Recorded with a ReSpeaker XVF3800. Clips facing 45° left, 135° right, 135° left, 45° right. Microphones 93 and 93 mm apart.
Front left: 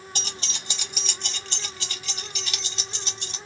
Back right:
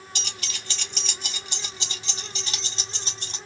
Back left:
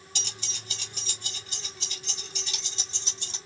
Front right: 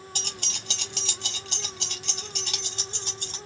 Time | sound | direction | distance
0.1 | keys jangling | 5° right | 0.9 m